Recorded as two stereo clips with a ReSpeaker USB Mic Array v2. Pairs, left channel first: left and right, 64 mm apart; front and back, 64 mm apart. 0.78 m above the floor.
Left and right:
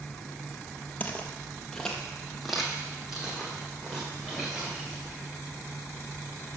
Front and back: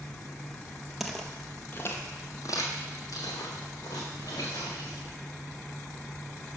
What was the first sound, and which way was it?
Footsteps, 100° left.